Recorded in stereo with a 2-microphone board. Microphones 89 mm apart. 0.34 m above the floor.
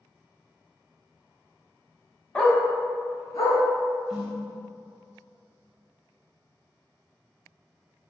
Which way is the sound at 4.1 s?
10° right (ahead or behind).